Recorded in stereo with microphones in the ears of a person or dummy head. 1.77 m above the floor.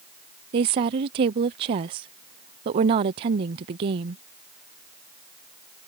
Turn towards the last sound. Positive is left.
turn(degrees=-30)  # may be behind; listen again after turning